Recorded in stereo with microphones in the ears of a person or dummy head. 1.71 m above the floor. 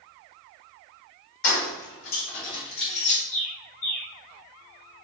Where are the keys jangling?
65° left (ahead or behind), 2 m; by 3.2 s 35° left (ahead or behind), 1.7 m.